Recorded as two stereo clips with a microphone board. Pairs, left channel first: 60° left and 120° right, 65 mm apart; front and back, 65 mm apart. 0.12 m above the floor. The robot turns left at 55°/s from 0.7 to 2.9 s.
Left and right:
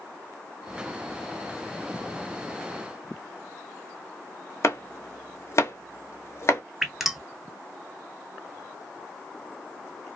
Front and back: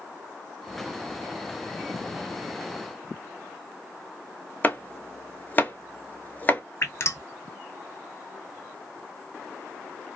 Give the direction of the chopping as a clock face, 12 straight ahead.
10 o'clock.